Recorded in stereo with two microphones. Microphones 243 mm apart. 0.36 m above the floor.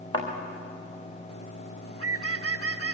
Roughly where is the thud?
Left.